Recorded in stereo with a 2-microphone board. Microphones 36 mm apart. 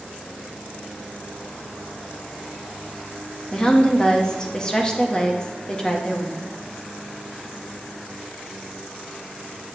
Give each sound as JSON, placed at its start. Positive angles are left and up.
{"t": 3.5, "sound": "a woman speaking", "side_deg": 20, "distance_m": 0.9}